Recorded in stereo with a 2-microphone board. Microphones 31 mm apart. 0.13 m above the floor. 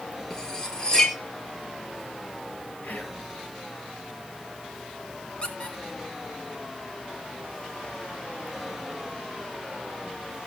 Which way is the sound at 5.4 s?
30° left (ahead or behind).